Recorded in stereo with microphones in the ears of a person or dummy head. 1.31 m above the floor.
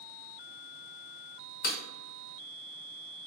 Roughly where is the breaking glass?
Left.